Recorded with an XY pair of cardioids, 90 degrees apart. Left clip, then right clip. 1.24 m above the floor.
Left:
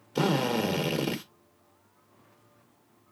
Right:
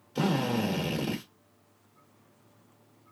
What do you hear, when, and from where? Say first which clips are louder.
0.1 s a drill: left 3 dB; 40° left, 0.9 m